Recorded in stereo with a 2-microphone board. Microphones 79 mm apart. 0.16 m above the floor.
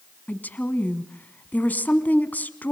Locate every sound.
0.3 s a woman speaking: 20° left (ahead or behind), 1.2 m